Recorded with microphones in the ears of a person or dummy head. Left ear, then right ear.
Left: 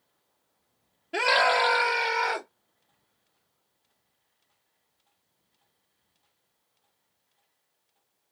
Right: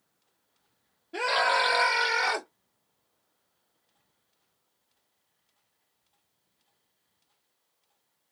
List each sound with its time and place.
1.1 s a scream: 30° left (ahead or behind), 0.8 m; by 2.5 s 60° right (ahead or behind), 1.4 m